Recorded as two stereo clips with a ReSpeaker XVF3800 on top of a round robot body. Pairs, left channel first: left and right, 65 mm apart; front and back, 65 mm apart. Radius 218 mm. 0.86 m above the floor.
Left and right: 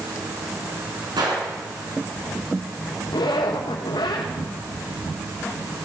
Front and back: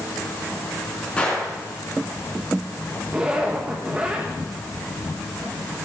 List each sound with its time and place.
1.2 s a gunshot: 75° right, 3 m
3.1 s a zipper: 105° left, 1.3 m